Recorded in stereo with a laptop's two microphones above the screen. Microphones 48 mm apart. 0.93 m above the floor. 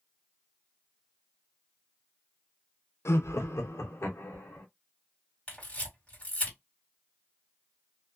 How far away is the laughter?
About 0.6 m.